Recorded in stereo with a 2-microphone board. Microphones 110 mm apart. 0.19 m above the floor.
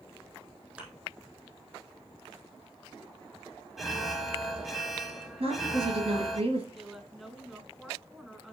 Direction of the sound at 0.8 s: 10° right (ahead or behind).